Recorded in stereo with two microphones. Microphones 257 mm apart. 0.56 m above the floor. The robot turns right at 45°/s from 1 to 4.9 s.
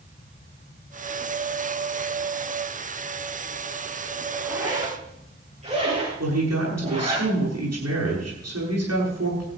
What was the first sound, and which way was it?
A zipper, centre (ahead or behind).